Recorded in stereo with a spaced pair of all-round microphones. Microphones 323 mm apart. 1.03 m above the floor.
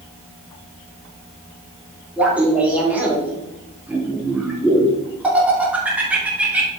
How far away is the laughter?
About 2.5 m.